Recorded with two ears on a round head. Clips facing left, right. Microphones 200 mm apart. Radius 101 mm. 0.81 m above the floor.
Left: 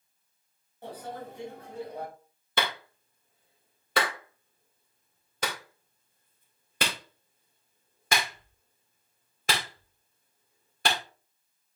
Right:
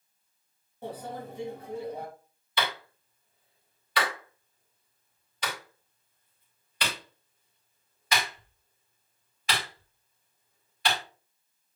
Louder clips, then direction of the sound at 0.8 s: Right 2 dB; 80° right.